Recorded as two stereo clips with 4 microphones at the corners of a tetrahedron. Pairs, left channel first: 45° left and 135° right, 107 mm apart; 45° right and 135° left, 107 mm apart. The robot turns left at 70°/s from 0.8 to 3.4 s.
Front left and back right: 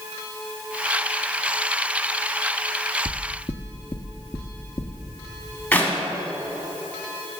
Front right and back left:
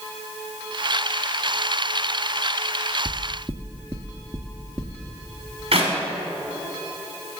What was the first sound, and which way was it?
Knocking, 120° left.